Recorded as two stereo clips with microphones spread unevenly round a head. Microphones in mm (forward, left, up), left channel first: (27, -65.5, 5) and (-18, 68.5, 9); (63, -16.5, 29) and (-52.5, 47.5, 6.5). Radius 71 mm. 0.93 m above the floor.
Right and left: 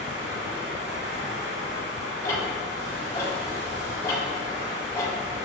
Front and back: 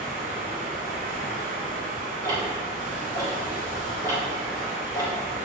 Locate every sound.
0.0 s running water: 125° left, 2.5 m
2.2 s ticking: 140° right, 3 m